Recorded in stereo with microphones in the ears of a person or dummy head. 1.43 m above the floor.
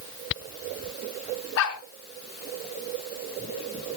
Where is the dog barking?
65° left (ahead or behind), 4 m.